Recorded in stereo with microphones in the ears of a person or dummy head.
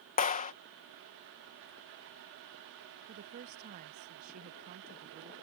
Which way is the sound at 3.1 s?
45° right (ahead or behind).